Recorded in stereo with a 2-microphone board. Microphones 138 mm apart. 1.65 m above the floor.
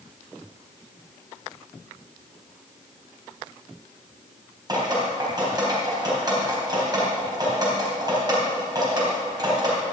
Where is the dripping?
30° right (ahead or behind), 3.5 m.